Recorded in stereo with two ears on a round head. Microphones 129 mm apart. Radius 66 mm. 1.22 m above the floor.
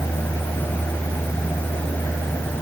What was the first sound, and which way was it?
Only background noise.